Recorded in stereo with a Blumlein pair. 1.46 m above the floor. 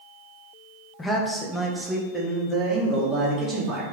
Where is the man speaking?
15° left, 0.6 m; by 3.8 s 25° right, 1.9 m.